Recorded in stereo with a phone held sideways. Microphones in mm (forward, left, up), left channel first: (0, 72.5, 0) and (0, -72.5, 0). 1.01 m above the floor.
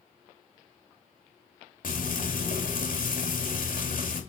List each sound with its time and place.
1.8 s frying: 70° left (ahead or behind), 2.5 m